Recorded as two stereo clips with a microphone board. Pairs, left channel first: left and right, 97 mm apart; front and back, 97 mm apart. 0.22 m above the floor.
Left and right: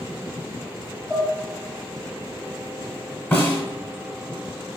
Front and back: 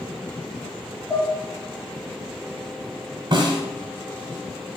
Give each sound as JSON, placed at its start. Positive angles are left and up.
{"t": 1.1, "sound": "dishes clattering", "azimuth_deg": 0, "distance_m": 1.1}
{"t": 3.3, "sound": "a snare drum", "azimuth_deg": 160, "distance_m": 1.0}